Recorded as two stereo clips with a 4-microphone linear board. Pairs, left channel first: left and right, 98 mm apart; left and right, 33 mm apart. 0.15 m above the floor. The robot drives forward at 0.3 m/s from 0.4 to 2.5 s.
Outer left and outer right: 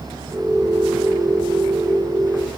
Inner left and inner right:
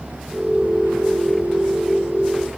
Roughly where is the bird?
I don't hear a bird.